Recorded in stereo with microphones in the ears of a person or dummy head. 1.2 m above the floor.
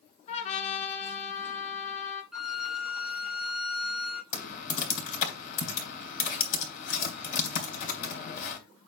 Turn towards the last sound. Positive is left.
turn(degrees=55)  # may be behind; listen again after turning